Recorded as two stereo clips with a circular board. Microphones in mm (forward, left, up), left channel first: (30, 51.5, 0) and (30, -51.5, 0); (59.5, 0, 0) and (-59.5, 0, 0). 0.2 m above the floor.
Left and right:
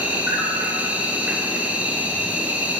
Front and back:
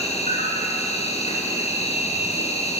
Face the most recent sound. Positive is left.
turn(degrees=-15)